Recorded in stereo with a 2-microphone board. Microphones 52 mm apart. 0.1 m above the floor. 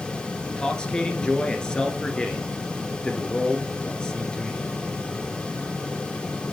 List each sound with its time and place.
0.5 s a man speaking: 15° left (ahead or behind), 1.8 m